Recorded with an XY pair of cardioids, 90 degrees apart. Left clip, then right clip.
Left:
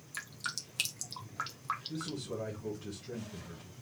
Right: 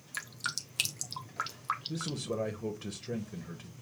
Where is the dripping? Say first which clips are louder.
Right 3 dB; 30° right, 1.0 m.